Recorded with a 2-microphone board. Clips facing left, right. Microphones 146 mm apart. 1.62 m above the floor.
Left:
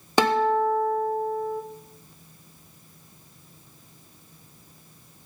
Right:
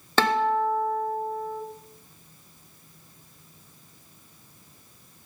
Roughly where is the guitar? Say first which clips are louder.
Left 2 dB; centre.